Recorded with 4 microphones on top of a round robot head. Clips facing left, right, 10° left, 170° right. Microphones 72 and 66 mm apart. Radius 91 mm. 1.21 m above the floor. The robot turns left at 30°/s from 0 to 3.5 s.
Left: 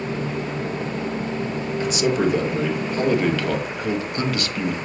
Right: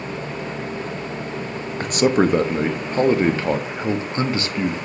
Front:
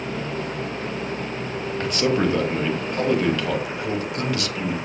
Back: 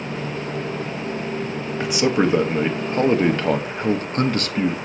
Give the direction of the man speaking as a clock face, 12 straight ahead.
3 o'clock.